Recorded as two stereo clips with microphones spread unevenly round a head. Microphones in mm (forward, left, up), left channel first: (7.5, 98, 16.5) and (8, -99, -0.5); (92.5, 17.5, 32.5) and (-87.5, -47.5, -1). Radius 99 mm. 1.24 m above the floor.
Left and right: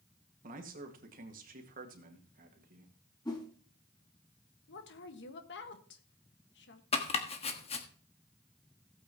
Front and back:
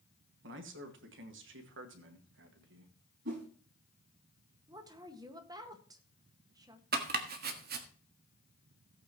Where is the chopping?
150° left, 1.4 m.